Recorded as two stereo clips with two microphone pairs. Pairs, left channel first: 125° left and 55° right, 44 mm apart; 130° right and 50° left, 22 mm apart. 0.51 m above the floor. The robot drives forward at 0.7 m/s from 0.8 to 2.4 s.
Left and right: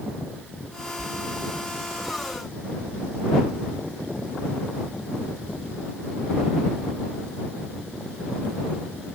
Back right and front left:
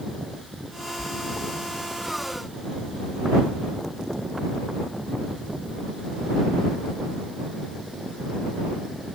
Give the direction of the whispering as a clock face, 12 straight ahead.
12 o'clock.